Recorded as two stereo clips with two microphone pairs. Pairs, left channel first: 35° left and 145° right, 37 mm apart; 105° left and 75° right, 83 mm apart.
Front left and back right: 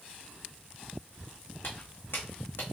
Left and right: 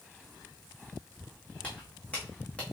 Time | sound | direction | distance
1.6 | footsteps | 30° left | 1.9 m